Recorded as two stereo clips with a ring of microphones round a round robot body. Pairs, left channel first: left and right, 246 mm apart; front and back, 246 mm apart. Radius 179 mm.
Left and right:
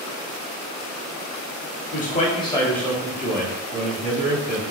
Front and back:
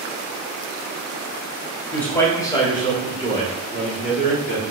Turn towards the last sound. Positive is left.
turn(degrees=-55)